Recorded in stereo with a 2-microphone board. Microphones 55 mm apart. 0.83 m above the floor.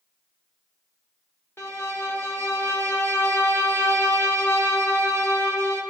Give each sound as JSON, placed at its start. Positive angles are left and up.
{"t": 1.6, "sound": "a violin", "side_deg": 40, "distance_m": 1.3}